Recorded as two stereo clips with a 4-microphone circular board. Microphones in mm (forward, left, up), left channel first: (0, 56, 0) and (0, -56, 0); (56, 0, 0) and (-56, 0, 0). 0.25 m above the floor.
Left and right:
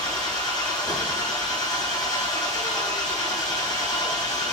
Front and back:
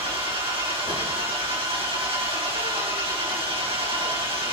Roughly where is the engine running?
Behind left.